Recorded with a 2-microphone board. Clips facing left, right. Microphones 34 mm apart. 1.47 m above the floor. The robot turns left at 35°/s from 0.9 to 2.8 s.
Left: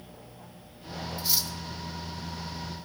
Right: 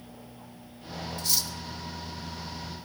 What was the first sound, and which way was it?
Cutlery clinking, 15° left (ahead or behind).